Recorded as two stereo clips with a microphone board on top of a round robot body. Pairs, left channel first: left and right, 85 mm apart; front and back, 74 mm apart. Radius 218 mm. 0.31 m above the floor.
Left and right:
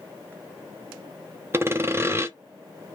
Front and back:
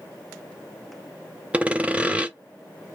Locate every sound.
1.5 s sawing: 120° right, 1.2 m